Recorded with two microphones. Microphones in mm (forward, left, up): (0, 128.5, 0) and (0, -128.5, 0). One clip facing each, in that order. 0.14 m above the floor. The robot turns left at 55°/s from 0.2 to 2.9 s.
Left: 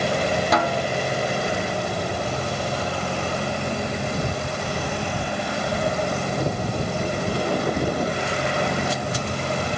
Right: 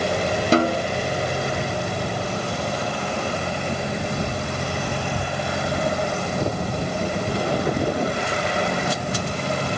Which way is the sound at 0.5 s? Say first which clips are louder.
Right 4 dB; 30° right (ahead or behind).